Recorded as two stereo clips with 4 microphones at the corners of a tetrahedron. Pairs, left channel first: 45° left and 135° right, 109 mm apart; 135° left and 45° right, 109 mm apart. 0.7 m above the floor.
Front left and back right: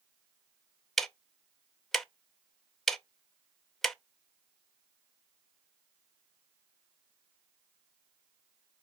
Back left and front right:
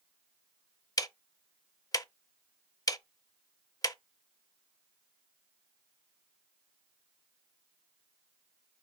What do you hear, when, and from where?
1.0 s ticking: 130° left, 0.5 m